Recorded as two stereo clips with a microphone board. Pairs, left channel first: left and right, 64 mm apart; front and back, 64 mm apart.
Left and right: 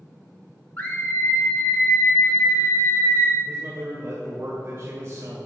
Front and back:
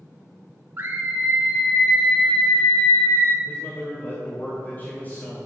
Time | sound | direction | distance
0.8 | a scream | 145° left | 1.1 m
3.5 | a man speaking | 50° right | 2 m